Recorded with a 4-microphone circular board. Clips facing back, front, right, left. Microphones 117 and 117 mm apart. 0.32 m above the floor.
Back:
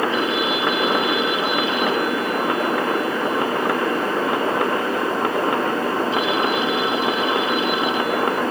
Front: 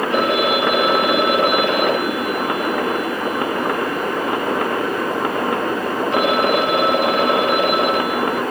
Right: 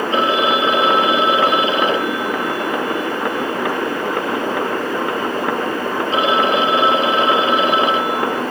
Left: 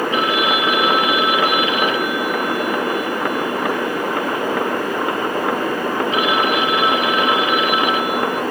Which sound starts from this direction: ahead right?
A phone ringing, at 0.1 s.